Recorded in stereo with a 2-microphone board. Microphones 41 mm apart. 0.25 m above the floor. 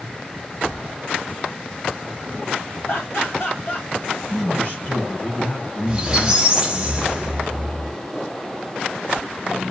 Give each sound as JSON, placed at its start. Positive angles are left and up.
{"t": 2.9, "sound": "laughter", "side_deg": 60, "distance_m": 2.5}
{"t": 4.3, "sound": "a man speaking", "side_deg": 40, "distance_m": 3.5}
{"t": 5.9, "sound": "a squeak", "side_deg": -15, "distance_m": 1.1}